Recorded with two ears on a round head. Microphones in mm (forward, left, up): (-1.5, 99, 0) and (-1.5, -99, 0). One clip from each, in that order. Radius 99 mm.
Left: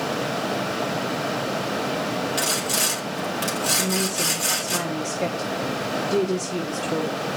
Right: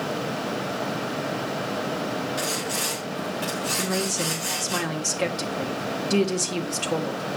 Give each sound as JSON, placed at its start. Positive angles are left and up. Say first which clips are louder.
{"t": 2.4, "sound": "sawing", "louder": "left 6 dB", "side_deg": 35, "distance_m": 2.5}
{"t": 3.8, "sound": "a woman speaking", "louder": "left 2 dB", "side_deg": -55, "distance_m": 1.5}